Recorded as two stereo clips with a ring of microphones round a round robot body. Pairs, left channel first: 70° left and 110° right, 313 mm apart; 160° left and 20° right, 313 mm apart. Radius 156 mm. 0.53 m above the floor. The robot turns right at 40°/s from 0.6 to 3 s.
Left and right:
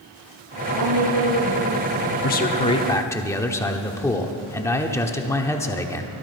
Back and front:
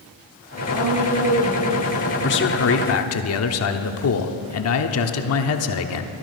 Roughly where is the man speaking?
Behind left.